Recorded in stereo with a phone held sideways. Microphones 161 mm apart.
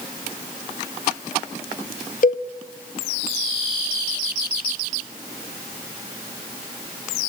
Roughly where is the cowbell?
Left.